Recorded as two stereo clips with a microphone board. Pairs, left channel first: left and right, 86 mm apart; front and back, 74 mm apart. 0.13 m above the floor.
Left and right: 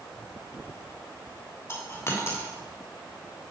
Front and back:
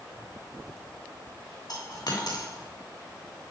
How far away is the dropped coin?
About 5.5 m.